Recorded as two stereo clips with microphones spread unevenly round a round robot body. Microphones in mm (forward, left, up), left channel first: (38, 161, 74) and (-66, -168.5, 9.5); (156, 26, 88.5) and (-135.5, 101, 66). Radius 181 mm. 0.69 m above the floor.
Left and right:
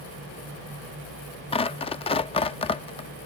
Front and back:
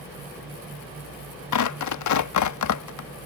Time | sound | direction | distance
1.5 | tearing paper | 5° right | ?